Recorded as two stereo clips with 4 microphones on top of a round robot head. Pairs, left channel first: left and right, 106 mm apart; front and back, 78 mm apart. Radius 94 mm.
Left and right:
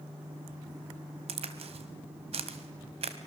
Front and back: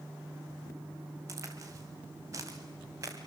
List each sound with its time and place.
1.3 s a crack: 120° right, 1.8 m